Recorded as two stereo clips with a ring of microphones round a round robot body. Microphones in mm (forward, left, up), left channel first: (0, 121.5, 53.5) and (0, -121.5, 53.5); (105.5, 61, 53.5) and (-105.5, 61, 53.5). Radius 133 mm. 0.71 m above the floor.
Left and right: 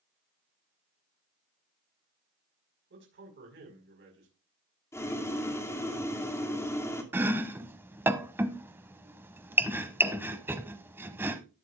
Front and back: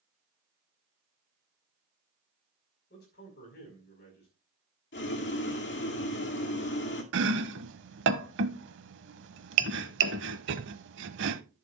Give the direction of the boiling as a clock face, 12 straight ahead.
12 o'clock.